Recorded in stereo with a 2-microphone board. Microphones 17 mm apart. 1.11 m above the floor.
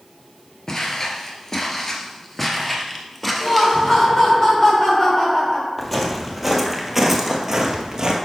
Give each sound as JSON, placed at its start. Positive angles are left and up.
{"t": 0.7, "sound": "footsteps", "side_deg": 40, "distance_m": 1.3}
{"t": 3.4, "sound": "laughter", "side_deg": 30, "distance_m": 3.0}
{"t": 5.8, "sound": "footsteps", "side_deg": 15, "distance_m": 1.4}